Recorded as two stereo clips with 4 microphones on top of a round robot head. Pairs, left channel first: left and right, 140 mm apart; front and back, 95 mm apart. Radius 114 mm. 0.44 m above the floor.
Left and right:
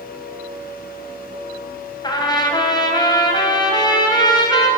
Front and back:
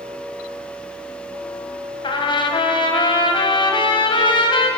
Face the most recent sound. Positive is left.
turn(degrees=30)